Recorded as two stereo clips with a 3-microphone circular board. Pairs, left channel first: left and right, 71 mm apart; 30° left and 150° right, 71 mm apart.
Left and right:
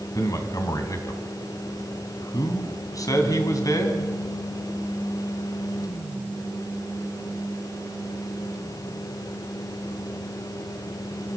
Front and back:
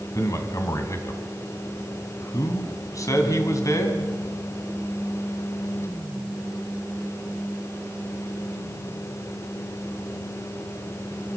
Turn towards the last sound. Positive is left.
turn(degrees=60)